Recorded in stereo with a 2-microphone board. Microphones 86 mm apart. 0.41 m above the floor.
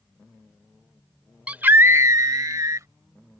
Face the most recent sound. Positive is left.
turn(degrees=-40)  # may be behind; listen again after turning